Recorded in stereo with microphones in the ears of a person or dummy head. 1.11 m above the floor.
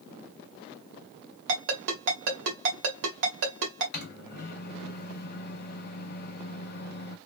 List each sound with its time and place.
1.5 s a ringtone: 70° right (ahead or behind), 1.7 m
3.9 s a microwave: 60° left (ahead or behind), 0.7 m